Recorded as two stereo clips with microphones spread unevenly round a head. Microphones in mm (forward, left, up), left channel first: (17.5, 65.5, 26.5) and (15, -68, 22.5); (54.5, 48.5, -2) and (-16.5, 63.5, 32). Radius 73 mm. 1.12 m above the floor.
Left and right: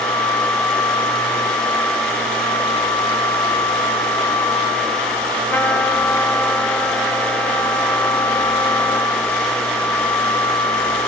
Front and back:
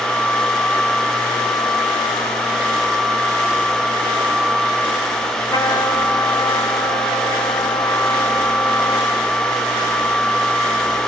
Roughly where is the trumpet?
Ahead.